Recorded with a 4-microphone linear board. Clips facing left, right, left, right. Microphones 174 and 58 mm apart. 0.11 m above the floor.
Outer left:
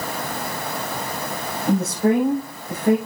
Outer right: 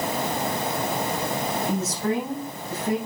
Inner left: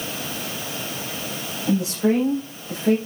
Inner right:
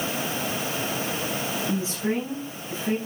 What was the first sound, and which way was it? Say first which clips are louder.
A woman speaking: outer left 11 dB, inner left 10 dB; 60° left (ahead or behind).